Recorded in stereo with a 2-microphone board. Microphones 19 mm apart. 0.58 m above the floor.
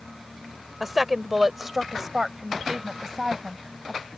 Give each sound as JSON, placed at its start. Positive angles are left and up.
{"t": 0.8, "sound": "a woman speaking", "side_deg": -10}